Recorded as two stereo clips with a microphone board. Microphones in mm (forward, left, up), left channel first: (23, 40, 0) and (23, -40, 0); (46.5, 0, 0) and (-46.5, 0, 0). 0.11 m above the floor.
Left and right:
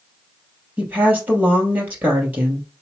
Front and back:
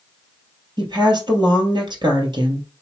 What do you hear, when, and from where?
0.8 s a woman speaking: 155° right, 2 m